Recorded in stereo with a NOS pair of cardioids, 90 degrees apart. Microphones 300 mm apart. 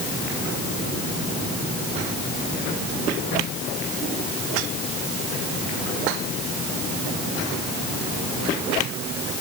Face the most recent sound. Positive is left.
No sound to turn to.